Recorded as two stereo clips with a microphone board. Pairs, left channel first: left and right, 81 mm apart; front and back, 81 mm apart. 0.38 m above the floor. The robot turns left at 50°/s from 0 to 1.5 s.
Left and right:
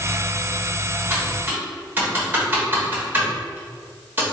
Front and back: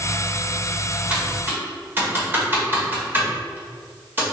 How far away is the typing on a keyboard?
About 1.1 m.